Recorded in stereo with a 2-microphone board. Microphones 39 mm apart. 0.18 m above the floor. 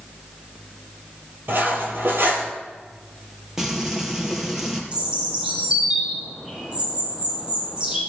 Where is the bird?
30° right (ahead or behind), 8 m.